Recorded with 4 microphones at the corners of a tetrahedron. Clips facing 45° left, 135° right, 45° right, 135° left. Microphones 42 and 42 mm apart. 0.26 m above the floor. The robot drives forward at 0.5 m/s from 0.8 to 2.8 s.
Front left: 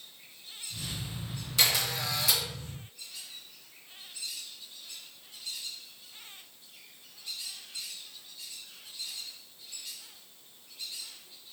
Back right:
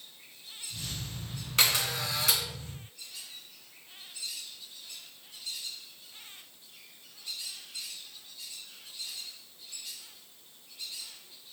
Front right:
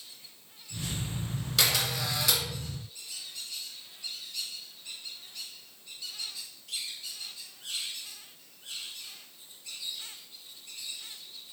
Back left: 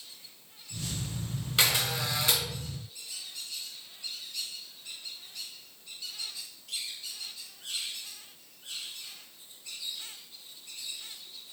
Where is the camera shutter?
170° right, 2.5 m.